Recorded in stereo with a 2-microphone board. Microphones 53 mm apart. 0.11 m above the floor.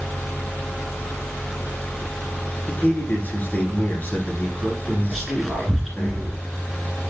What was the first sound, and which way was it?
A man speaking, 30° left (ahead or behind).